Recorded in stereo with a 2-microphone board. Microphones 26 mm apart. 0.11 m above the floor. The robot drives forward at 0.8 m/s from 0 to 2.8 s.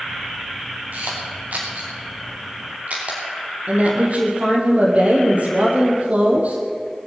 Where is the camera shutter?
75° right (ahead or behind), 3.5 m; by 3.2 s 55° right (ahead or behind), 4.5 m.